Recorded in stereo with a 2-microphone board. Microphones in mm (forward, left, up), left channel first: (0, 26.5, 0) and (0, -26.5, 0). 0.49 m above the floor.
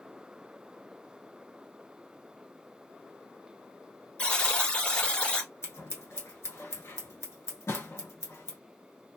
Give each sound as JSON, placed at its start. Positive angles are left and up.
{"t": 4.2, "sound": "a buzzer", "side_deg": 20, "distance_m": 1.2}
{"t": 5.6, "sound": "scissors", "side_deg": 60, "distance_m": 1.3}
{"t": 7.7, "sound": "writing", "side_deg": 75, "distance_m": 0.6}